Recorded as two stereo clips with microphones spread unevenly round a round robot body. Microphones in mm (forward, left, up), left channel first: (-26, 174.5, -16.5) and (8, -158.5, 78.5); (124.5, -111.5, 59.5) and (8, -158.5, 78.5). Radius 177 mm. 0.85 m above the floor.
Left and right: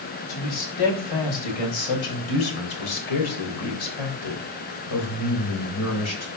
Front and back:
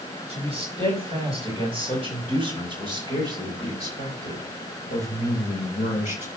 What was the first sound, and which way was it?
A man speaking, 100° left.